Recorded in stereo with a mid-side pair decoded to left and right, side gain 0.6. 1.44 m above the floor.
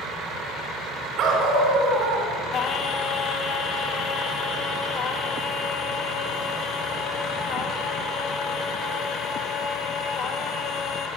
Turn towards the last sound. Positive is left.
turn(degrees=45)